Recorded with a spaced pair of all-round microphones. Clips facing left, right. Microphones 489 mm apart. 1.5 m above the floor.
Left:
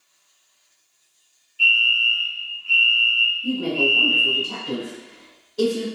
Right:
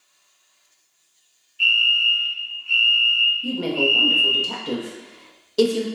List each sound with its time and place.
1.6 s a fire alarm: 70° left (ahead or behind), 1.6 m
3.4 s a woman speaking: 85° right, 0.6 m